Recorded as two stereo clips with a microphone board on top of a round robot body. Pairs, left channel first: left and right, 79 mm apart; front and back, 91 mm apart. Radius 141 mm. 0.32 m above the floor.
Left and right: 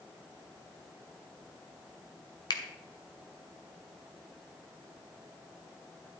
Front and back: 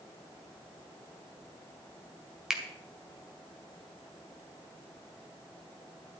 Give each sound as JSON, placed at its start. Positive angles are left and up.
{"t": 2.5, "sound": "a finger snap", "azimuth_deg": 95, "distance_m": 2.0}